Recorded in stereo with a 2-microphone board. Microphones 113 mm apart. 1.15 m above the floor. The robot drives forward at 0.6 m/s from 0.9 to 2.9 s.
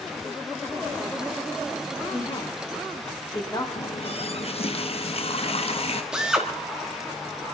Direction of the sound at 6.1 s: 5° right (ahead or behind).